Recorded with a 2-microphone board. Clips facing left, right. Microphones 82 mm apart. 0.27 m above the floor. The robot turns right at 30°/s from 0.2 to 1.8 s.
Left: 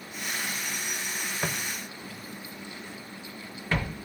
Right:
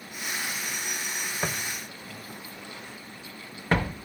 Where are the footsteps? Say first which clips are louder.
Right 1 dB; 5° right (ahead or behind), 1.2 m; by 4.0 s 35° right (ahead or behind), 1.7 m.